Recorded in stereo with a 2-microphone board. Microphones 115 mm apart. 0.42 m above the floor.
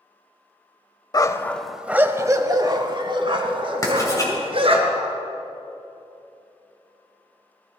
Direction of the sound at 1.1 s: 35° left (ahead or behind).